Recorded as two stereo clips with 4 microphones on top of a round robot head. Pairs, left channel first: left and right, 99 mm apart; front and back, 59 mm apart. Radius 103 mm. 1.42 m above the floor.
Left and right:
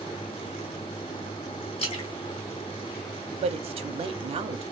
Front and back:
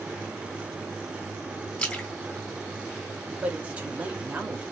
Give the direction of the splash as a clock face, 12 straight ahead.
10 o'clock.